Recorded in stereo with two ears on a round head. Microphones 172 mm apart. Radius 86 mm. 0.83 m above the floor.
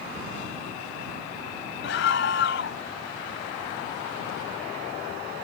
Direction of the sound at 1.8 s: 65° left (ahead or behind).